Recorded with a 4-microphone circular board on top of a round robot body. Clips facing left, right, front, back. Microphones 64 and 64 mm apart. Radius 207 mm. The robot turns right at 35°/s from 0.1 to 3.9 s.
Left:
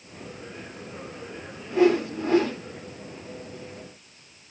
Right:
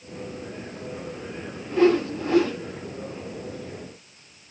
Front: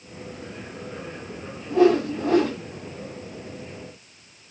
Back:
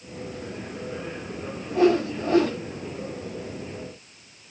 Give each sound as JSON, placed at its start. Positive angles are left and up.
{"t": 1.7, "sound": "a whoosh", "azimuth_deg": 10, "distance_m": 0.9}